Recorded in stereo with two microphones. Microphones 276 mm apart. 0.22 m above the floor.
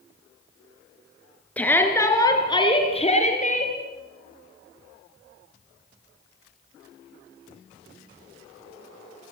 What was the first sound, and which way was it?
A shout, 5° left (ahead or behind).